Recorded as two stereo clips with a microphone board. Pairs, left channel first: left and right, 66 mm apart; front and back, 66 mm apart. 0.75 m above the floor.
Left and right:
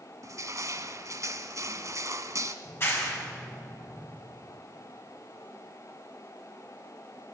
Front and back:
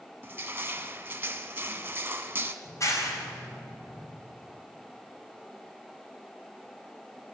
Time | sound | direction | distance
0.2 | crushing | 120° right | 1.2 m
2.6 | a clap | 35° left | 4 m